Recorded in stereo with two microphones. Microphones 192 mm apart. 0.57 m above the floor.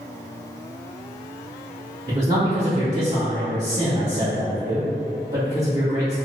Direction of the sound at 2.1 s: 40° right (ahead or behind).